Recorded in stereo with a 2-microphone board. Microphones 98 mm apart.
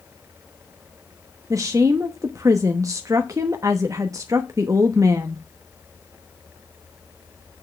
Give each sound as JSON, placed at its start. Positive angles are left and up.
{"t": 1.5, "sound": "a woman speaking", "side_deg": -35, "distance_m": 0.8}